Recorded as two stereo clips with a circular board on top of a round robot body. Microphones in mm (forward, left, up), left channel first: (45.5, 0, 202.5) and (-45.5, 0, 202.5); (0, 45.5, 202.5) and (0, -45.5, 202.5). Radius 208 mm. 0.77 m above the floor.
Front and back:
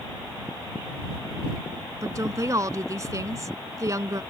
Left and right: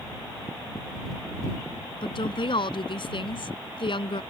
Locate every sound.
2.0 s a woman speaking: 125° left